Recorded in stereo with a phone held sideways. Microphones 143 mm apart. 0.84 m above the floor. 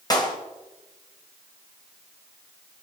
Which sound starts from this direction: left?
A clap, at 0.1 s.